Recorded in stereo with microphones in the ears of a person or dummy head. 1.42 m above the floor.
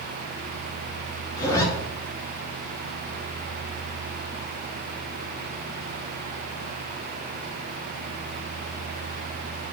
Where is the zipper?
25° left (ahead or behind), 2 m.